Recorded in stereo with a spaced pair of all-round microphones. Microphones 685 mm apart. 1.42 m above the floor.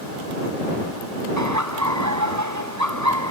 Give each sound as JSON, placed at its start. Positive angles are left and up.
{"t": 1.4, "sound": "laughter", "side_deg": -25}